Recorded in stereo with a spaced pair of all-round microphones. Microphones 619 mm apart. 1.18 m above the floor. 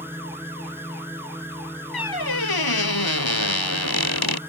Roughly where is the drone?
Centre.